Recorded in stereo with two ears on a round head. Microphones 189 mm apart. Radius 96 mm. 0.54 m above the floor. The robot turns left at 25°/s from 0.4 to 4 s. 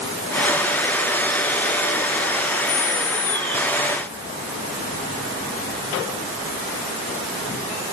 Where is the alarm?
No alarm in this recording.